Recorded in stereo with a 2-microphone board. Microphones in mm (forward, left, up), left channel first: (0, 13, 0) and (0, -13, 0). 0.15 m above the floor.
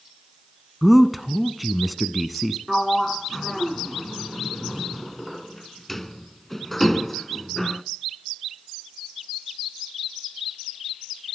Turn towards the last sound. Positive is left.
turn(degrees=10)  # may be behind; listen again after turning